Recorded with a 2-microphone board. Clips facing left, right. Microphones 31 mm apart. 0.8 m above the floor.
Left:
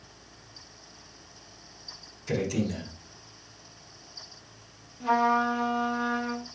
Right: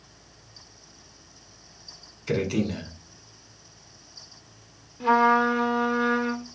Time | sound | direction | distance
2.3 | a man speaking | 35° right (ahead or behind) | 1.4 m
5.0 | a trumpet | 40° right (ahead or behind) | 0.8 m